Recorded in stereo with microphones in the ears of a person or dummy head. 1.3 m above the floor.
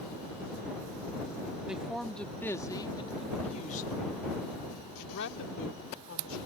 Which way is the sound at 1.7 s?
5° right (ahead or behind).